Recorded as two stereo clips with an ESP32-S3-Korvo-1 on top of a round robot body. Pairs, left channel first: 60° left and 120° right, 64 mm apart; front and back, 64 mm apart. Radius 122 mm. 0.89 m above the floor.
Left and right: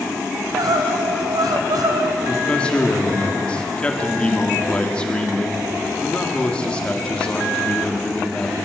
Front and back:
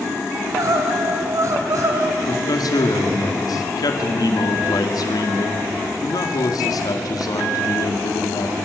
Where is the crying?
140° right, 2.5 m.